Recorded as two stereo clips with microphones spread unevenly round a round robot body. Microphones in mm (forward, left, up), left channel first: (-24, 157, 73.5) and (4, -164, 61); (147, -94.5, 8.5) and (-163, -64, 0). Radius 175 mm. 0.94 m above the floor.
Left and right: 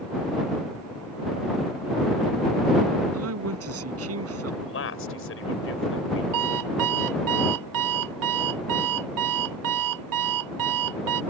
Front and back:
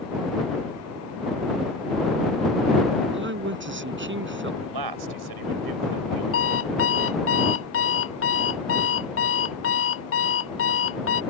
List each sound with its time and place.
3.1 s a man speaking: 135° right
4.6 s a man speaking: 145° left
6.3 s an alarm clock: 55° right